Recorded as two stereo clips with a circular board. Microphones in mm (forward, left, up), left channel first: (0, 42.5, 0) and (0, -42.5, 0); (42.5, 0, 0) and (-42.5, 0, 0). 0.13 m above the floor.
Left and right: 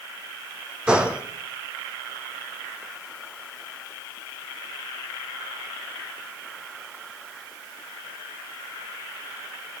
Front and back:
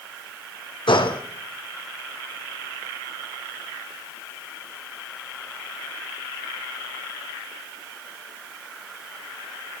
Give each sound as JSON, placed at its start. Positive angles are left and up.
{"t": 0.9, "sound": "a gunshot", "azimuth_deg": -10, "distance_m": 1.4}